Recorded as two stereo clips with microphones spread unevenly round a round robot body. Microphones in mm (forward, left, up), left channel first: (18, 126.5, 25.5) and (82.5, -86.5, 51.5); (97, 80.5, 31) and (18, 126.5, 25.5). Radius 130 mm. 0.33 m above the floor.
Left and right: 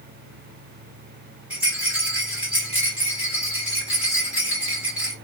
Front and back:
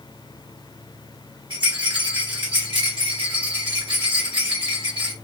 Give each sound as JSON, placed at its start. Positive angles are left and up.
{"t": 1.5, "sound": "a rattle", "azimuth_deg": -160, "distance_m": 0.9}